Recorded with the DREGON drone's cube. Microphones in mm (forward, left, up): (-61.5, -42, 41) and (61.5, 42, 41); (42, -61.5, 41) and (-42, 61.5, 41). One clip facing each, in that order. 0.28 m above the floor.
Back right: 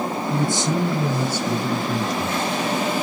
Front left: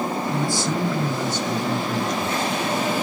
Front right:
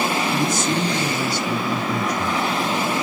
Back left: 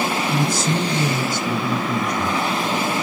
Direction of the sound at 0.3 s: 170° left.